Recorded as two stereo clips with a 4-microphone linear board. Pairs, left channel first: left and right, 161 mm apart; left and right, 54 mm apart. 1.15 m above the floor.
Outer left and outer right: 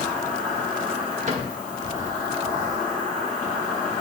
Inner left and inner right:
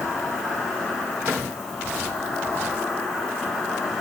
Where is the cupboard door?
50° right (ahead or behind), 1.4 m.